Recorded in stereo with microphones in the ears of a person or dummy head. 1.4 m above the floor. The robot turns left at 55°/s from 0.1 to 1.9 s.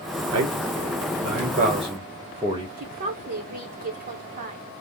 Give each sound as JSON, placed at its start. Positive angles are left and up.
{"t": 0.3, "sound": "a man speaking", "side_deg": -75, "distance_m": 1.2}
{"t": 2.8, "sound": "a woman speaking", "side_deg": -40, "distance_m": 1.1}